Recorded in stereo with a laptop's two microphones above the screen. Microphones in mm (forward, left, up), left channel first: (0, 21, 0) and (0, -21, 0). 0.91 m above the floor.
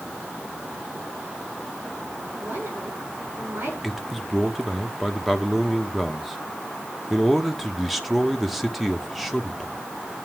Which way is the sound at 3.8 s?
5° right (ahead or behind).